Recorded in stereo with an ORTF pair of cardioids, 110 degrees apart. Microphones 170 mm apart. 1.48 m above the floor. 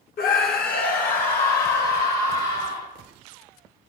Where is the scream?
65° left, 1.1 m; by 2.9 s 60° left, 3 m.